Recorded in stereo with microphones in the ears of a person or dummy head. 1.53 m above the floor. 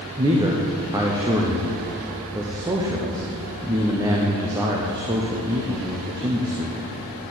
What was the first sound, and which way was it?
A man speaking, 15° right (ahead or behind).